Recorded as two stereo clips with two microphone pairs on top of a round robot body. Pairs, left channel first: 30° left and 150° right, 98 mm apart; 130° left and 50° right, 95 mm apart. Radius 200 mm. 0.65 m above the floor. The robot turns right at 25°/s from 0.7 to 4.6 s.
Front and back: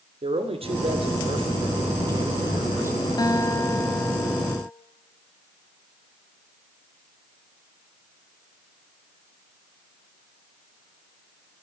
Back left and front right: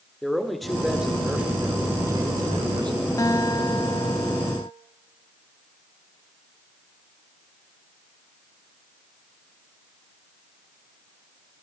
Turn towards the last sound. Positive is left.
turn(degrees=110)